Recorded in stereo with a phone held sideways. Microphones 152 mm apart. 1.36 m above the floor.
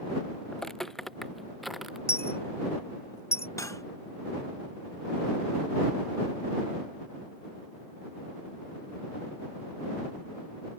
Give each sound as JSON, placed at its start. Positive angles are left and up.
{"t": 0.5, "sound": "footsteps", "side_deg": 5}
{"t": 2.1, "sound": "a dropped coin", "side_deg": 20}
{"t": 3.6, "sound": "cutlery clinking", "side_deg": 20}